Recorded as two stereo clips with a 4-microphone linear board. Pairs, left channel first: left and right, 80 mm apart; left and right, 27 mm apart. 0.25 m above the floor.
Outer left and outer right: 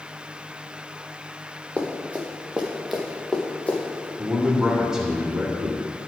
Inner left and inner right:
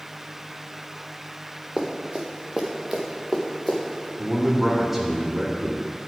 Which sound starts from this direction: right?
Running footsteps, at 1.8 s.